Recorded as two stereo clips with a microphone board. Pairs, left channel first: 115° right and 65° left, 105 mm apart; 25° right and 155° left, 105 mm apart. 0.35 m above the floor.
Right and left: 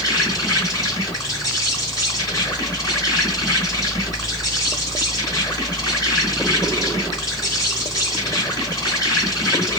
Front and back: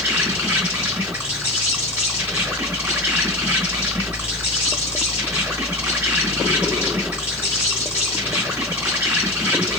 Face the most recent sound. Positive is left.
turn(degrees=-145)